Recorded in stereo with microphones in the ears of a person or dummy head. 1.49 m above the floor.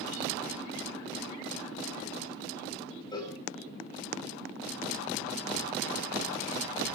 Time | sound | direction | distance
3.1 | a cowbell | 25° left (ahead or behind) | 6 m